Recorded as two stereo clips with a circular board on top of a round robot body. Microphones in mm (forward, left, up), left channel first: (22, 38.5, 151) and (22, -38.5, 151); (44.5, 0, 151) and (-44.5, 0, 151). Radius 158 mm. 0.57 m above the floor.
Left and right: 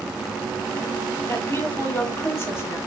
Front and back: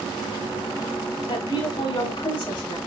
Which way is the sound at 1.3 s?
35° left.